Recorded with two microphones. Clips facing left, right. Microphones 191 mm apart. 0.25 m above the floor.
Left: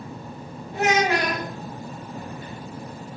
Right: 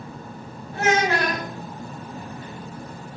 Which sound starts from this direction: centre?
A child speaking, at 0.7 s.